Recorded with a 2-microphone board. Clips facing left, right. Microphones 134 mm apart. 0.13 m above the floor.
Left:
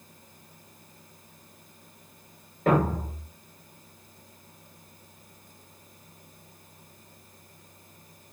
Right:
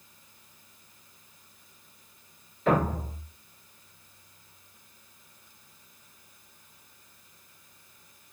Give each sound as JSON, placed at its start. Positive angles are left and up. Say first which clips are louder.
{"t": 2.7, "sound": "a thud", "louder": "left 2 dB", "side_deg": 55, "distance_m": 1.1}